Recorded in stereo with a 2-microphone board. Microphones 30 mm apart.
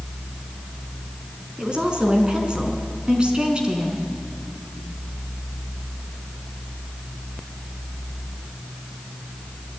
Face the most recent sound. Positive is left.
turn(degrees=-30)  # may be behind; listen again after turning